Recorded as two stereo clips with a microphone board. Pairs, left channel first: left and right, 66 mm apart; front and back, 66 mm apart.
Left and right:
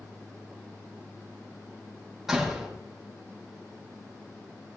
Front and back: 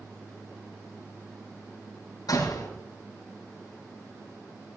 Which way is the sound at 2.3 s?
5° right.